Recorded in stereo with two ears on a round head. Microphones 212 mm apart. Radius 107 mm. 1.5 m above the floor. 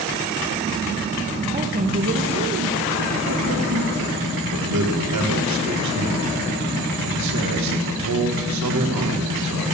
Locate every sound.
1.5 s a woman speaking: 20° right (ahead or behind), 1.0 m; by 4.2 s 75° right (ahead or behind), 1.7 m
4.5 s a man speaking: 80° right, 1.8 m